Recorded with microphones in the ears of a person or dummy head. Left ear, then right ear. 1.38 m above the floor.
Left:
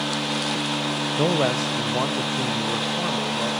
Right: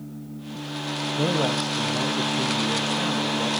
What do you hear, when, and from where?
1.2 s a man speaking: 55° left (ahead or behind), 1.1 m; by 3.5 s 45° left (ahead or behind), 2.5 m